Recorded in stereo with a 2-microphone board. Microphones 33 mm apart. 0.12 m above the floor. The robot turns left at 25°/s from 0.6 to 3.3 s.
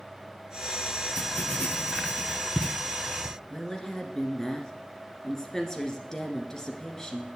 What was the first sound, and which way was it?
Writing, 60° left (ahead or behind).